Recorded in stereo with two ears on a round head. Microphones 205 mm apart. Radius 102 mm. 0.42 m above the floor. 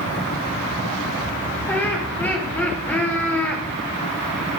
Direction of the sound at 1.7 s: 10° left (ahead or behind).